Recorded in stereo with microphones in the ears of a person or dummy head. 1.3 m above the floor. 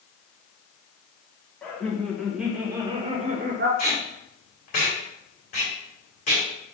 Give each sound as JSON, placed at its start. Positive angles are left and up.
{"t": 1.6, "sound": "laughter", "side_deg": 5, "distance_m": 1.5}
{"t": 3.8, "sound": "tape being pulled", "side_deg": 40, "distance_m": 2.0}